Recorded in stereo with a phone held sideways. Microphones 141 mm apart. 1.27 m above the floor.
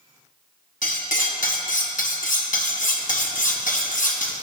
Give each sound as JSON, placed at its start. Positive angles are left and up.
{"t": 0.8, "sound": "cutlery clinking", "side_deg": 70, "distance_m": 1.1}